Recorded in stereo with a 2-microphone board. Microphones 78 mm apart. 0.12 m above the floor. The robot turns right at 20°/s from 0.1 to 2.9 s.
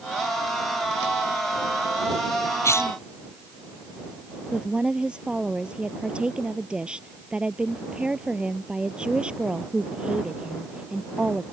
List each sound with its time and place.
2.6 s a cough: 40° left (ahead or behind); by 3.0 s 35° left (ahead or behind)
4.5 s a woman speaking: 15° right (ahead or behind)